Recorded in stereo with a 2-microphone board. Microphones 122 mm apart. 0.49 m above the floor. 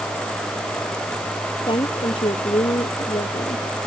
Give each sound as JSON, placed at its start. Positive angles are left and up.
{"t": 1.7, "sound": "a woman speaking", "side_deg": 40}